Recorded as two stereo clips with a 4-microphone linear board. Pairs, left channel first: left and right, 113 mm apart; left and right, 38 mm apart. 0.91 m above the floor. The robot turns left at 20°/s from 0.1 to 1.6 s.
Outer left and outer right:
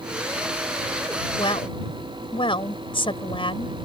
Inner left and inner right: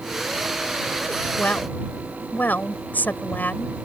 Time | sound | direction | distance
1.4 | a woman speaking | 50° left (ahead or behind) | ?